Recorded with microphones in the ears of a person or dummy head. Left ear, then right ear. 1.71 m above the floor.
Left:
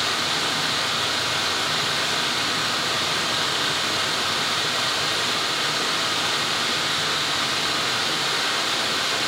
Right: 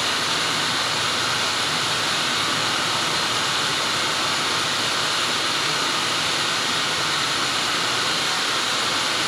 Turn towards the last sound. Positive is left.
turn(degrees=15)  # may be behind; listen again after turning